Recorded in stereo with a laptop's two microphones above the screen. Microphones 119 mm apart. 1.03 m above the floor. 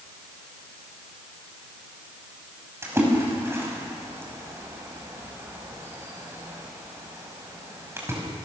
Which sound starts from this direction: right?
A splash, at 2.8 s.